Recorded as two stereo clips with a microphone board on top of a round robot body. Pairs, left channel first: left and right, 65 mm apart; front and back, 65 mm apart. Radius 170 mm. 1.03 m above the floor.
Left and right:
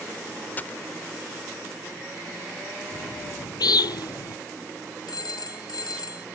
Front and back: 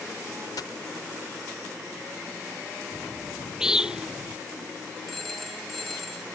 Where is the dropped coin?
30° left.